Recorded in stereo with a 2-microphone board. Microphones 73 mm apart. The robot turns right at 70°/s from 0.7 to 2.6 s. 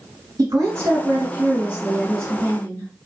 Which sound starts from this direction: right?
A woman speaking, at 0.4 s.